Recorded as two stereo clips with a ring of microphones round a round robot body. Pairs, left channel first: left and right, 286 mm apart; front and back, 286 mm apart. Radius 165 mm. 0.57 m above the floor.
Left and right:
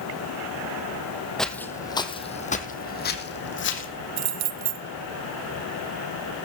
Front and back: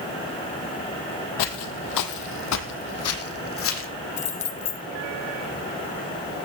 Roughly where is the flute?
No flute in this recording.